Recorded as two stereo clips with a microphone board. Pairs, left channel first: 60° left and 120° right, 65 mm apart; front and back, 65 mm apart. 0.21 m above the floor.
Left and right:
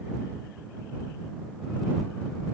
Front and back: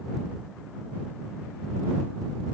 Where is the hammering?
I don't hear hammering.